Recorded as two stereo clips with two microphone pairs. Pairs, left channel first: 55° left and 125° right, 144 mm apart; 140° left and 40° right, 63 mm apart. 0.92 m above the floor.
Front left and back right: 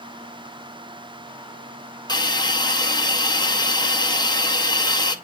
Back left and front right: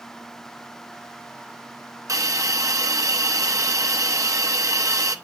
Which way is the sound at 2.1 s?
5° right.